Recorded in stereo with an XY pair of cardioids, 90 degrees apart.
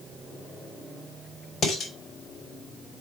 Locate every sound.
1.6 s dishes clattering: 65° left, 4 m